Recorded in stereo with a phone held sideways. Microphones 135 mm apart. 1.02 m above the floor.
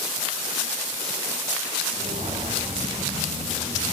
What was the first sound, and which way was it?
Footsteps, 55° right (ahead or behind).